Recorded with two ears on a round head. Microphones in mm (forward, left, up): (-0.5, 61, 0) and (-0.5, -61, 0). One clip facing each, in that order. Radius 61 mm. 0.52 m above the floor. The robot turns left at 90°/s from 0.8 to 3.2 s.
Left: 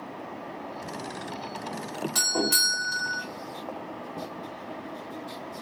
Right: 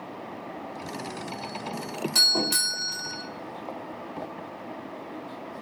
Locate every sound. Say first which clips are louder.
2.1 s a doorbell: left 2 dB; 10° right (ahead or behind), 1.6 m; by 3.2 s 15° left (ahead or behind), 1.6 m